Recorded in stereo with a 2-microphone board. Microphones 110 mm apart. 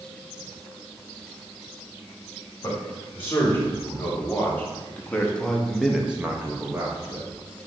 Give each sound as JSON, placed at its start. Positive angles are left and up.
{"t": 2.6, "sound": "a man speaking", "side_deg": 20, "distance_m": 1.9}